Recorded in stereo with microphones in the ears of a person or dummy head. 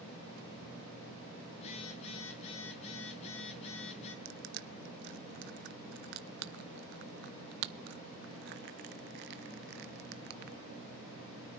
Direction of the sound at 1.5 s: 35° left (ahead or behind).